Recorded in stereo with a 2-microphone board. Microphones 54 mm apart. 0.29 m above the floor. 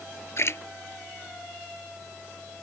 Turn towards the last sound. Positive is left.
turn(degrees=50)  # may be behind; listen again after turning